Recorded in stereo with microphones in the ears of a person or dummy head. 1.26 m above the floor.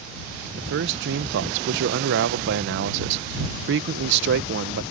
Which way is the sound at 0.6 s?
65° right (ahead or behind).